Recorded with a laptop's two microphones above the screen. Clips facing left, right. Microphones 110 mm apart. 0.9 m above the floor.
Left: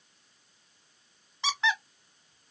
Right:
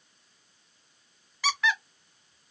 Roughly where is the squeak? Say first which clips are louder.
Right 1 dB; left.